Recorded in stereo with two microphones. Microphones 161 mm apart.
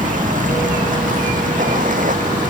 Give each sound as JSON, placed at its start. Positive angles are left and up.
{"t": 0.0, "sound": "running water", "side_deg": -55}